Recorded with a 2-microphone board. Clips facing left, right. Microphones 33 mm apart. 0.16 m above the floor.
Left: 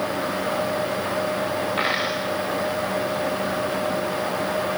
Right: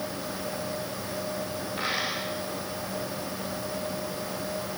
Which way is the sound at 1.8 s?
45° left (ahead or behind).